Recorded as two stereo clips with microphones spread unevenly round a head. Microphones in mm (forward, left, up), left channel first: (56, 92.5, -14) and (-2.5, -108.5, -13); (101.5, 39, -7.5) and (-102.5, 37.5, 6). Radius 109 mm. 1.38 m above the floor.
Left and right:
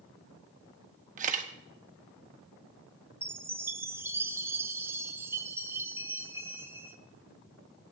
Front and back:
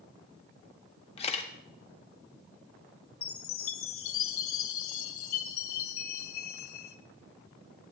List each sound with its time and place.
1.2 s a camera shutter: 60° right, 1.1 m
3.2 s a chime: 25° right, 0.8 m